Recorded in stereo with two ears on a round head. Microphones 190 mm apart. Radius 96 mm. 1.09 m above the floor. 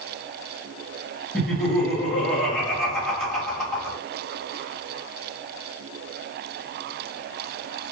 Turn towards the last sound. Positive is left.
turn(degrees=0)  # may be behind; listen again after turning